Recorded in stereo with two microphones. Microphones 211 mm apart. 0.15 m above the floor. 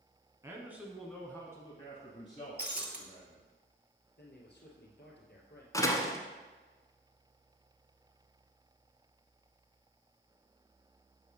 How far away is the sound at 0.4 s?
About 1.3 m.